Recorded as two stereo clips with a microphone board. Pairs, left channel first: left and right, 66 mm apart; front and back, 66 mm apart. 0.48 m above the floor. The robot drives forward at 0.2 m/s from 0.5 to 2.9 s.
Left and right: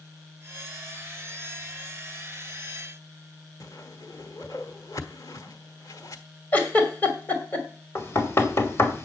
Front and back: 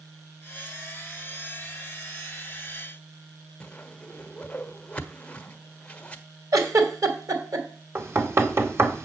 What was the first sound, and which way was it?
A whoosh, 70° left.